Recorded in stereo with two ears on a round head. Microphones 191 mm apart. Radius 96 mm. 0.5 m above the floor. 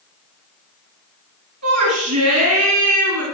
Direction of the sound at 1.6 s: 80° right.